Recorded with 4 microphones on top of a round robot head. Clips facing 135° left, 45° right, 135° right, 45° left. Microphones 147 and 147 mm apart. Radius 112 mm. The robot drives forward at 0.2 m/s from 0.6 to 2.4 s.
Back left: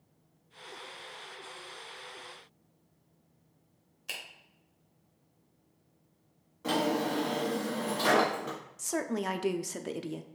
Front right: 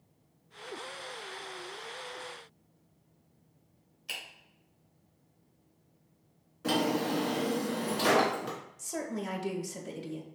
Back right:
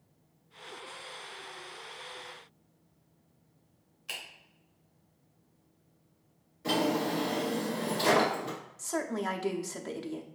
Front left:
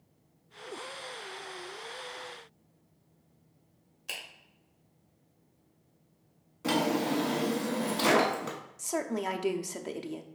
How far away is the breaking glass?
I don't hear breaking glass.